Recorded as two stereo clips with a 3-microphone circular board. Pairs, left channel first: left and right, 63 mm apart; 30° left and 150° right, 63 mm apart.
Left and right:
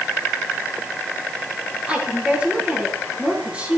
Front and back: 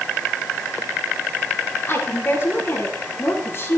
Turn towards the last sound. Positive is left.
turn(degrees=-20)